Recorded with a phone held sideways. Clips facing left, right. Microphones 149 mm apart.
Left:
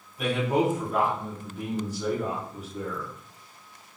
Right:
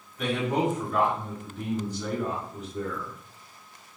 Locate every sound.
0.2 s a man speaking: 10° left (ahead or behind), 1.5 m